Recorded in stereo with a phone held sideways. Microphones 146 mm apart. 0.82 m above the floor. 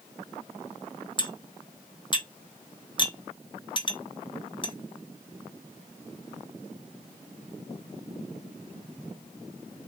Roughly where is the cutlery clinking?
Left.